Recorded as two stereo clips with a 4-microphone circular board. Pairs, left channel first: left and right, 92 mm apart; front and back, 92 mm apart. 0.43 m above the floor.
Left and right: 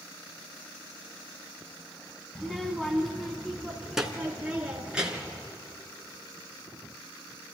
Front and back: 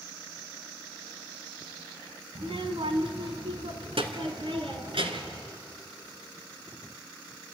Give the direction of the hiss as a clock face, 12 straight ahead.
I don't hear a hiss.